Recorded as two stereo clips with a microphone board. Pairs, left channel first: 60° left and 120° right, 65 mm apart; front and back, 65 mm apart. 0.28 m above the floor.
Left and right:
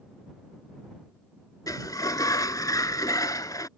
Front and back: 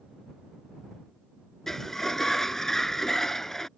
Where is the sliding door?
85° left.